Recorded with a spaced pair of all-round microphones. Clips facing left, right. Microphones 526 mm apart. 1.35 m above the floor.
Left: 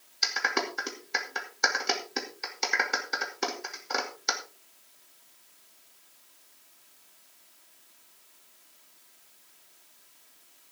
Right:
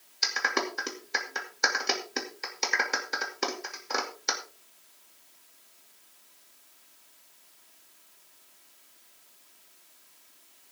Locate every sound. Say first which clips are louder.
0.2 s a clap: right 1 dB; centre (ahead or behind), 2.5 m